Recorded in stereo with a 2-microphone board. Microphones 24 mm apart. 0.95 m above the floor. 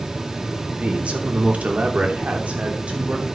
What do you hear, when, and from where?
0.8 s a man speaking: 60° right (ahead or behind), 3 m; by 3.2 s 55° right (ahead or behind), 3.5 m